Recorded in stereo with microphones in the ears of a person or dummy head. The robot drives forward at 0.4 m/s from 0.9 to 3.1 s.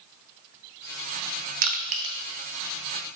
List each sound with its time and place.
1.6 s crushing: 50° right (ahead or behind), 0.5 m; by 2.1 s 35° right (ahead or behind), 0.7 m